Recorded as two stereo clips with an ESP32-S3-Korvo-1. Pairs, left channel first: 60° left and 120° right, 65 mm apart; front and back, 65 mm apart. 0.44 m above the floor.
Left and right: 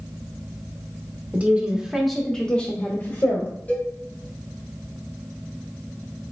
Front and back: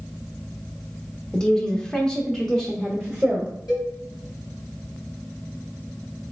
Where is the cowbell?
Straight ahead, 2.5 m.